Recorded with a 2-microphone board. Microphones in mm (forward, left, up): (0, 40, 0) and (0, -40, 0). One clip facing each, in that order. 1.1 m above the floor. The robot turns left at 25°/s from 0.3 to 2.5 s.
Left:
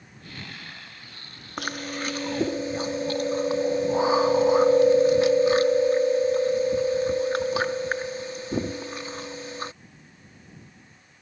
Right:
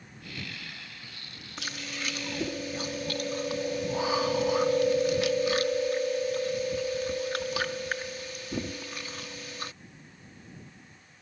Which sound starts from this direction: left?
Chewing, at 1.6 s.